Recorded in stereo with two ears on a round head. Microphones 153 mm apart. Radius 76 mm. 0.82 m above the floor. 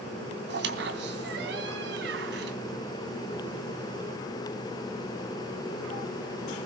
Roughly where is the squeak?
Right.